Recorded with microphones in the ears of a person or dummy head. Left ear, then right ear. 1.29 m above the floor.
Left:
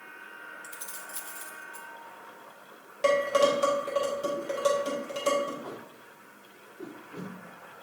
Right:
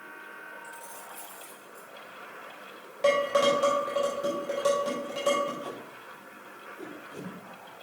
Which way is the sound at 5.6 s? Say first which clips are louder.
Right 3 dB; 60° right (ahead or behind).